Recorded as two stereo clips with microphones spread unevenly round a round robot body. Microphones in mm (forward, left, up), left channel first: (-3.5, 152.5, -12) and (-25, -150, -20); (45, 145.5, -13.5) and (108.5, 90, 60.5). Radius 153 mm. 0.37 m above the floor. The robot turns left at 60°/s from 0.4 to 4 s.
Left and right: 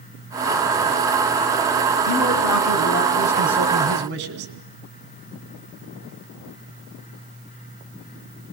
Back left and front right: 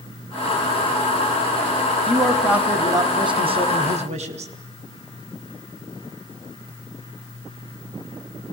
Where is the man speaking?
80° left, 3.5 m; by 4.5 s 40° right, 3.5 m.